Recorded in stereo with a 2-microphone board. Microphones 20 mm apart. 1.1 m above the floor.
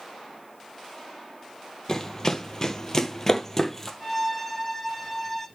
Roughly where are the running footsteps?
Left.